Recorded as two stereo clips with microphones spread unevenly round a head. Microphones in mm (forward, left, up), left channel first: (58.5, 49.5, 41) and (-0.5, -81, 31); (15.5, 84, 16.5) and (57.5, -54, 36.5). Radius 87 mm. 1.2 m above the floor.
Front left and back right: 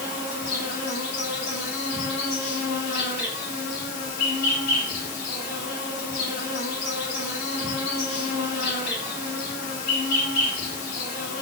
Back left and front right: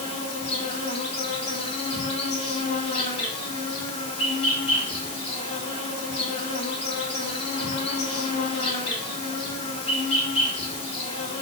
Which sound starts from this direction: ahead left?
An insect, at 0.0 s.